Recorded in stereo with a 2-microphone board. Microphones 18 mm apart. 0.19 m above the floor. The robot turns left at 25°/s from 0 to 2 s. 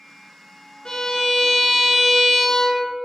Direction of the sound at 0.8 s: 50° left (ahead or behind).